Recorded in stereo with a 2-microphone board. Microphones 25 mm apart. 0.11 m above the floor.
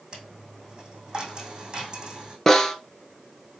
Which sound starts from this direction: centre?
A snare drum, at 2.5 s.